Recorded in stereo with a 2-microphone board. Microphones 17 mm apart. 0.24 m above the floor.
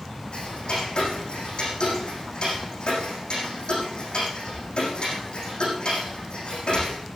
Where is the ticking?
55° left (ahead or behind), 6.5 m.